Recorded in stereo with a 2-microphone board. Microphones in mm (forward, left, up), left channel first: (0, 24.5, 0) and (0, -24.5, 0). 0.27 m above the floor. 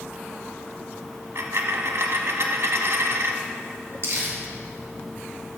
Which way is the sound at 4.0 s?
65° right (ahead or behind).